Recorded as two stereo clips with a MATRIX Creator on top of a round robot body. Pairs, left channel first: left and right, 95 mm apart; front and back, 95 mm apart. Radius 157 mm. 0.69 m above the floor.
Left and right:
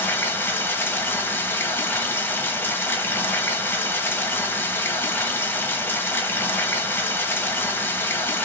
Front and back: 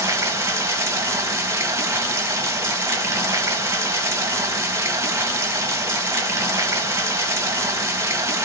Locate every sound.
0.0 s running water: 140° left, 0.9 m